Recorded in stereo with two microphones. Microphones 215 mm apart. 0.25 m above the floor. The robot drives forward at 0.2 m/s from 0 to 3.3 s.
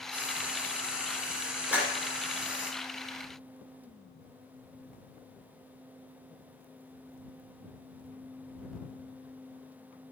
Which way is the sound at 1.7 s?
5° right (ahead or behind).